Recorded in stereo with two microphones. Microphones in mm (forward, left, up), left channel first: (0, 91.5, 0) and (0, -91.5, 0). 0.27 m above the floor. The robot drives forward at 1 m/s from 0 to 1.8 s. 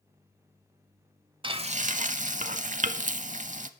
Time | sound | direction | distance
1.4 | frying | 30° right (ahead or behind) | 0.8 m